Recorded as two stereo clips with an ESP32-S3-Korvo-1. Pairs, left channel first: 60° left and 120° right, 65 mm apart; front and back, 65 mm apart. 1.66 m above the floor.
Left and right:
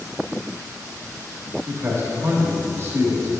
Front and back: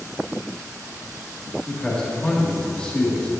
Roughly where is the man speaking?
Right.